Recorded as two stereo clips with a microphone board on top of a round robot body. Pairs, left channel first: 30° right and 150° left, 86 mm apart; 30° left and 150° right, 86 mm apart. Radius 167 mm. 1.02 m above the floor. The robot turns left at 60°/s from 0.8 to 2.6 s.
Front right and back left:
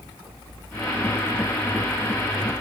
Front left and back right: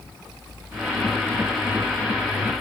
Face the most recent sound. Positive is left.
No sound to turn to.